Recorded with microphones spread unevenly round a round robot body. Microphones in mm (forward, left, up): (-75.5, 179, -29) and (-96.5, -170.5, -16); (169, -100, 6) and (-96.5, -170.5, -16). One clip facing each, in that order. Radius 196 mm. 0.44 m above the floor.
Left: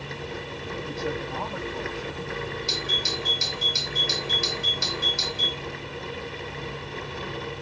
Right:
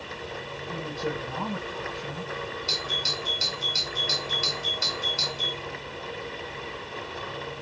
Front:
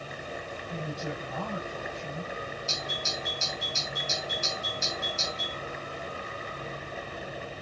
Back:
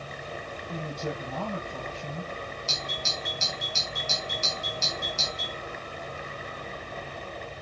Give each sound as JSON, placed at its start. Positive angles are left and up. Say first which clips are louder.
{"t": 0.7, "sound": "a man speaking", "louder": "left 1 dB, back 2 dB", "azimuth_deg": -160, "distance_m": 10.0}
{"t": 2.7, "sound": "a doorbell", "louder": "left 3 dB, even", "azimuth_deg": 170, "distance_m": 5.5}